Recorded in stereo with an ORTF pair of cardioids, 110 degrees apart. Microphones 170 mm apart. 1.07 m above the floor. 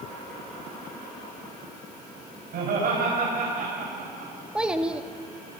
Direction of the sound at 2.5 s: 65° right.